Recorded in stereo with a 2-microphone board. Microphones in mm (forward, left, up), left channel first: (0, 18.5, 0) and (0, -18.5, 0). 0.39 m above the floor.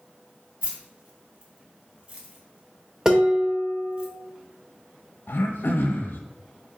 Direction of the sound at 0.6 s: 35° right (ahead or behind).